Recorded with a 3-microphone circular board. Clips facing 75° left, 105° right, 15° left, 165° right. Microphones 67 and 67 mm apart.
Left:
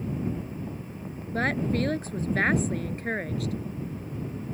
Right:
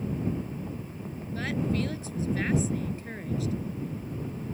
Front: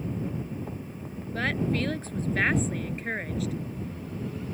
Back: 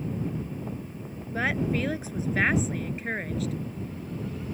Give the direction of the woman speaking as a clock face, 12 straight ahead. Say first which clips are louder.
Left 3 dB, back 1 dB; 8 o'clock.